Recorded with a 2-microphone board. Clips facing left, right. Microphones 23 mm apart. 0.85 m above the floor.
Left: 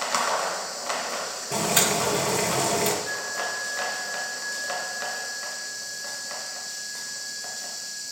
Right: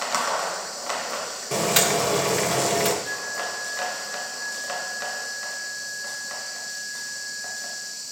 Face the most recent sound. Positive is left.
turn(degrees=-45)  # may be behind; listen again after turning